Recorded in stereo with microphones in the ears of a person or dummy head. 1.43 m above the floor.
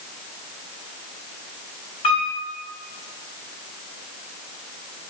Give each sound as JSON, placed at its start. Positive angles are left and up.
{"t": 2.0, "sound": "a piano", "side_deg": 35, "distance_m": 3.5}